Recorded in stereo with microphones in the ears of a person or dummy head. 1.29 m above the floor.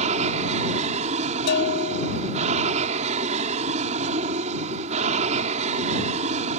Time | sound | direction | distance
0.0 | an aircraft | 35° right (ahead or behind) | ?
1.5 | a bell | 65° left (ahead or behind) | ?